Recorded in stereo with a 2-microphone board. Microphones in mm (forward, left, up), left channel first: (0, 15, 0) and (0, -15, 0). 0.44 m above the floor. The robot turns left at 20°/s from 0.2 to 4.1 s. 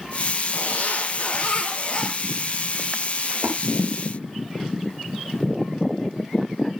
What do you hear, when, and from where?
0.5 s a zipper: 60° left, 3 m; by 2.1 s 30° left, 3 m
3.3 s a splash: 40° right (ahead or behind), 8 m; by 3.6 s 45° right (ahead or behind), 8 m